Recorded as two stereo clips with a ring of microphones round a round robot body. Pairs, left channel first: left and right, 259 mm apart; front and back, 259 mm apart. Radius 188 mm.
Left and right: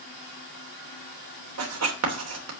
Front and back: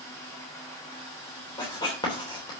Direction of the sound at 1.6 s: 75° right.